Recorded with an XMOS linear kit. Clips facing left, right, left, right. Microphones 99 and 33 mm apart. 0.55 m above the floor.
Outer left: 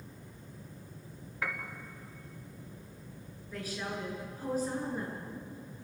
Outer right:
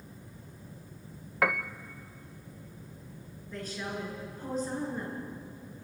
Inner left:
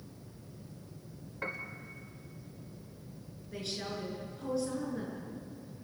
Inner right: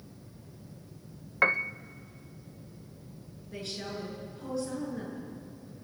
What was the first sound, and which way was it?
A piano, 80° right.